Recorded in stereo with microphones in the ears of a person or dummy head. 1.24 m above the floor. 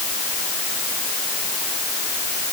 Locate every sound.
Only background noise.